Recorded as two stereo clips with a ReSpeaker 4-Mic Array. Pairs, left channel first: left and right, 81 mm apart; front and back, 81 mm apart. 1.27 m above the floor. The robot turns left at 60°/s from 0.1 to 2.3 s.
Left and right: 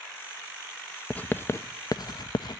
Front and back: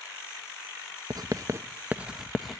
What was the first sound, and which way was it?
Writing, 165° left.